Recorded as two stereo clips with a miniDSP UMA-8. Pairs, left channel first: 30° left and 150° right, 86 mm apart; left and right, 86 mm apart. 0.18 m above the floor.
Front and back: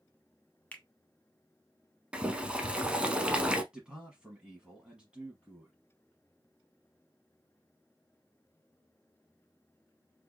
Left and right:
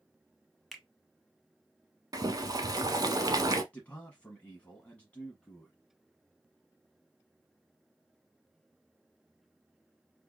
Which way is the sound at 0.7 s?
Straight ahead.